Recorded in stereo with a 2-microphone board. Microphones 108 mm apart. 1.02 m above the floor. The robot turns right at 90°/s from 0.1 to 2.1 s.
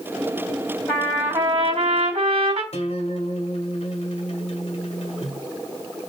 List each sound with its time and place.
0.9 s a trumpet: 165° left, 3 m; by 2.6 s 85° right, 3 m
2.7 s a guitar: 75° left (ahead or behind), 1.7 m